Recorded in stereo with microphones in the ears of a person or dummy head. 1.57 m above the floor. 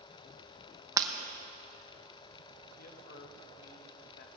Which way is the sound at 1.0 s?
20° right (ahead or behind).